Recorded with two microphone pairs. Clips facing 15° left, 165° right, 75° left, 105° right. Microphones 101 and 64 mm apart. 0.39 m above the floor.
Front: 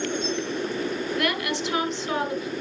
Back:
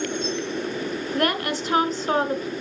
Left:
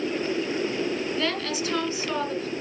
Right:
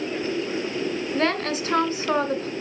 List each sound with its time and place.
1.1 s a woman speaking: 130° right, 1.6 m